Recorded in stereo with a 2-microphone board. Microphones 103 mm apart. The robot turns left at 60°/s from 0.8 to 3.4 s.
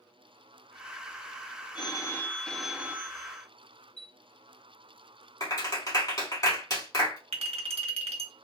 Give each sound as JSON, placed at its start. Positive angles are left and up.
{"t": 1.8, "sound": "a phone ringing", "azimuth_deg": 55, "distance_m": 0.5}
{"t": 4.0, "sound": "a chime", "side_deg": 80, "distance_m": 2.0}
{"t": 5.4, "sound": "a clap", "side_deg": 35, "distance_m": 2.0}
{"t": 7.3, "sound": "a clink", "side_deg": -75, "distance_m": 0.8}